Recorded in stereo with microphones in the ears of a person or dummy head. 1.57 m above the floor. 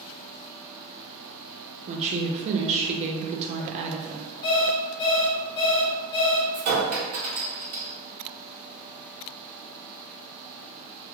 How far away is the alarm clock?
About 1.2 m.